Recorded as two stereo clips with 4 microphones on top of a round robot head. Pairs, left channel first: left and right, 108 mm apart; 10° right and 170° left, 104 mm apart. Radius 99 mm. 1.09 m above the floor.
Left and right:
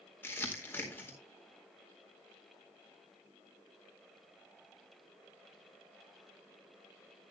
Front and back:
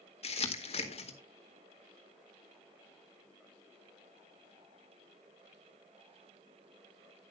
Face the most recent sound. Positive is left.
turn(degrees=15)